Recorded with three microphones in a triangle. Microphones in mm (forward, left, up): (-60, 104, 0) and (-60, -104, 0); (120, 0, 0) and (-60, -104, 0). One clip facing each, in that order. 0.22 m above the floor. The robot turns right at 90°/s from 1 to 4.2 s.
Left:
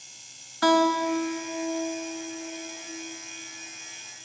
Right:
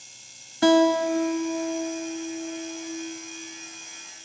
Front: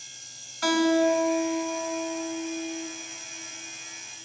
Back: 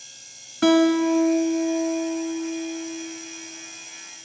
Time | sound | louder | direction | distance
0.6 | a guitar | right 4 dB, back 5 dB | 155° right | 0.6 m